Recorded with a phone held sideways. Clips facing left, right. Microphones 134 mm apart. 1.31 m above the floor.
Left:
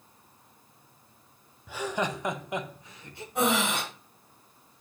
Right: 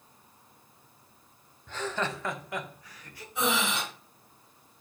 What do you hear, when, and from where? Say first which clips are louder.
1.7 s laughter: left 2 dB; 10° left (ahead or behind), 0.7 m; by 3.2 s 25° left (ahead or behind), 1.5 m
3.4 s breathing: left 3 dB; 55° left (ahead or behind), 5.5 m